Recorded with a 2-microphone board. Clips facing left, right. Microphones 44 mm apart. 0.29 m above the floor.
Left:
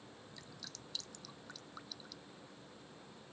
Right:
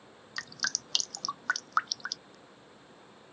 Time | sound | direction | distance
0.4 | dripping | 75° right (ahead or behind) | ?